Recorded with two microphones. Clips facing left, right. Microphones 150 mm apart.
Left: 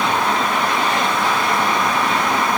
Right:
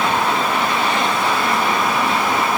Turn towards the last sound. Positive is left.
No sound to turn to.